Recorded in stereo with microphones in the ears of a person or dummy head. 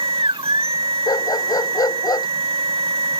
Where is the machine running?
25° right (ahead or behind).